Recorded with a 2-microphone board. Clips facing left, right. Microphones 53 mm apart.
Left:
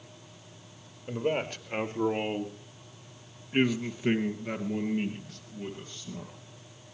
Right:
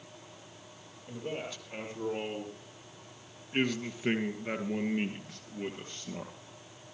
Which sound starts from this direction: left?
A man speaking, at 1.1 s.